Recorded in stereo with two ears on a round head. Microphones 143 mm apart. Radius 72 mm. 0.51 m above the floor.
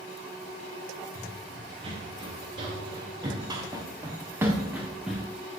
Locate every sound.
1.1 s running footsteps: 35° right (ahead or behind), 4 m; by 5.3 s centre (ahead or behind), 1.6 m